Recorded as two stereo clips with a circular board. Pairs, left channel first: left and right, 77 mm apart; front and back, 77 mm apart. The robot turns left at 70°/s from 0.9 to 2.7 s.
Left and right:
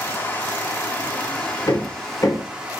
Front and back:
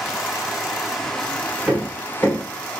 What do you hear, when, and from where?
0.0 s running water: 95° left, 0.8 m; by 2.8 s 35° right, 0.8 m
1.7 s hammering: 100° left, 1.2 m; by 2.4 s 50° left, 1.2 m